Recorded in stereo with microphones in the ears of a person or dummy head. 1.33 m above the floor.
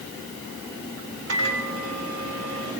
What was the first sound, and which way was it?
A microwave, 80° right.